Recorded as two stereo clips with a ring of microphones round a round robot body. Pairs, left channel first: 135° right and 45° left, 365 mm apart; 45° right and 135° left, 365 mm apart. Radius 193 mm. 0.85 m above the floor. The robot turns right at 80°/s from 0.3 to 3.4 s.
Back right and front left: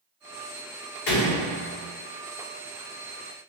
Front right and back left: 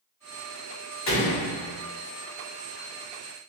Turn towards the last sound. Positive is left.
turn(degrees=85)